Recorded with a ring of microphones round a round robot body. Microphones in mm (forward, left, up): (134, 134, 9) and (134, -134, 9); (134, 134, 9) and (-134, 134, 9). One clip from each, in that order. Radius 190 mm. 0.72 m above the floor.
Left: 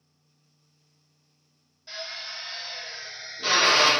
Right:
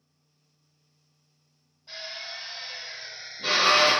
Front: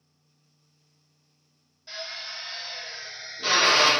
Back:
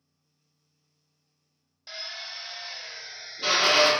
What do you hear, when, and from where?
1.9 s a drill: 145° left, 0.9 m